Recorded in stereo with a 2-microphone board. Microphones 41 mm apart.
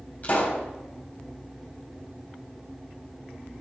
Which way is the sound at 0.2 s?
40° left (ahead or behind).